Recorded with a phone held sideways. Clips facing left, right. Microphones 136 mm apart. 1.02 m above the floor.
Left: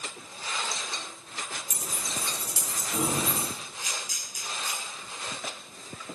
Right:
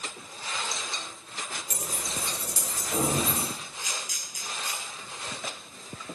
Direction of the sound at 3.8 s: 15° left (ahead or behind).